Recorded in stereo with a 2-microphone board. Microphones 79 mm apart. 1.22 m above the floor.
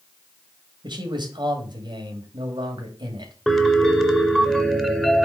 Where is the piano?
5° left (ahead or behind), 1.2 m.